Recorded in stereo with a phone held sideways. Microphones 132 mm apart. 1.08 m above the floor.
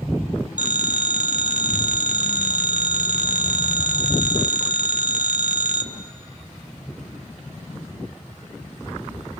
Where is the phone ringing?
65° right (ahead or behind), 0.8 m.